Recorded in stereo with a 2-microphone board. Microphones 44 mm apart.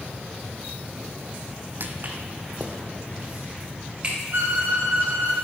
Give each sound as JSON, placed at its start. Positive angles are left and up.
{"t": 1.8, "sound": "footsteps", "side_deg": -50, "distance_m": 0.8}
{"t": 4.3, "sound": "a violin", "side_deg": -50, "distance_m": 1.7}